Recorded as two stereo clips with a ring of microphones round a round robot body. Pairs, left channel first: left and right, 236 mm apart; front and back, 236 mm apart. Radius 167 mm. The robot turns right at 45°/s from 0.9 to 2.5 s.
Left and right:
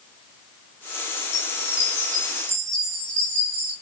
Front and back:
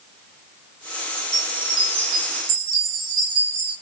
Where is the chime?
170° left, 9.5 m; by 3.7 s 130° right, 9.5 m.